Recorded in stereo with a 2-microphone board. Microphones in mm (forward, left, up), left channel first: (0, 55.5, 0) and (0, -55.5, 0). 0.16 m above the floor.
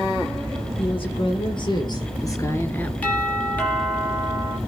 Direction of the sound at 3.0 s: 15° left (ahead or behind).